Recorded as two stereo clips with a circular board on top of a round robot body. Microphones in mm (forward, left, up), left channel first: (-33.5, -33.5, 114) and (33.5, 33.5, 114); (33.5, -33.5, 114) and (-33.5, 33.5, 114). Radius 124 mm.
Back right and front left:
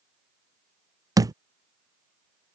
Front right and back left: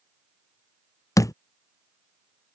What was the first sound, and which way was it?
A thud, straight ahead.